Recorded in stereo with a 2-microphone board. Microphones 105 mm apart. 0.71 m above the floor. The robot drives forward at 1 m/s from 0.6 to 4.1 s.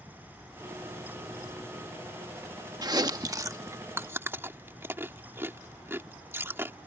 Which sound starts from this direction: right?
Chewing, at 2.8 s.